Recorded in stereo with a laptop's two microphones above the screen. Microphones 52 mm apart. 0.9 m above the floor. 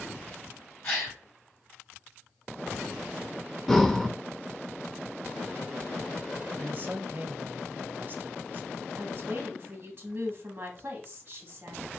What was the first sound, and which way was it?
A gasp, 45° left (ahead or behind).